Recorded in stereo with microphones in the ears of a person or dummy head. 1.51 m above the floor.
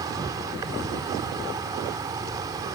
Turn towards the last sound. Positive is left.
turn(degrees=-20)  # may be behind; listen again after turning